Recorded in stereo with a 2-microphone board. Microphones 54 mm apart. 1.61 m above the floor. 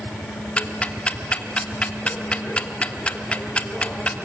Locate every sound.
0.6 s ticking: 20° left (ahead or behind), 1.3 m